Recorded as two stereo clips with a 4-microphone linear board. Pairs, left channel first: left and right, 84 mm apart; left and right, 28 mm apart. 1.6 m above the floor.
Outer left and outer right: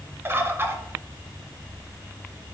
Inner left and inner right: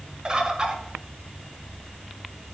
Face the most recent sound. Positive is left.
turn(degrees=-25)  # may be behind; listen again after turning